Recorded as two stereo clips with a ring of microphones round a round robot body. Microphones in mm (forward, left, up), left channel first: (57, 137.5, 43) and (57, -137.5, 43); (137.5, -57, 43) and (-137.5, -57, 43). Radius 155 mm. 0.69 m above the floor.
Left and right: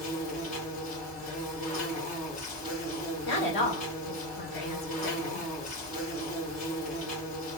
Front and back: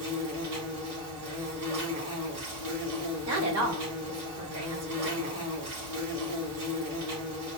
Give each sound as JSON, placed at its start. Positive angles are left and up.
{"t": 0.0, "sound": "an insect", "azimuth_deg": 160, "distance_m": 3.5}
{"t": 3.2, "sound": "a woman speaking", "azimuth_deg": 145, "distance_m": 2.5}